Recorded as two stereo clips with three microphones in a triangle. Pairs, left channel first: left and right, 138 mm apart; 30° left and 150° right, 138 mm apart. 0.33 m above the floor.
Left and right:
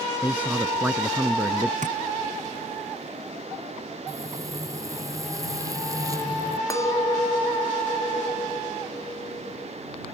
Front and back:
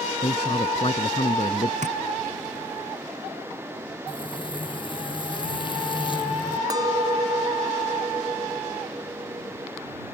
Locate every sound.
0.2 s a man speaking: 10° right
1.8 s tapping: 120° right
4.1 s frying: 25° right
6.7 s a clink: 155° left